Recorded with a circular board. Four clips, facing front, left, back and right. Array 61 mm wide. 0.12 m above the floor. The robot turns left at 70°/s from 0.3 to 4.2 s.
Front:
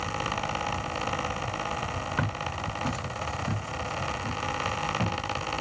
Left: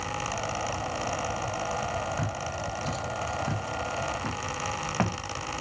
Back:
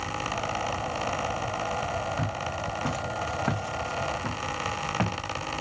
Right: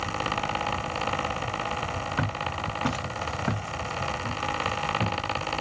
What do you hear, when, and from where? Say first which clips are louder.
2.2 s footsteps: right 3 dB, even; 45° right, 2 m; by 5.2 s 120° left, 2.5 m